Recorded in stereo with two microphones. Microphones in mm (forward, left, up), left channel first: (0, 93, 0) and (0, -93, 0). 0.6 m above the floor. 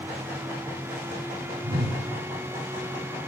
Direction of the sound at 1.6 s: 55° right (ahead or behind).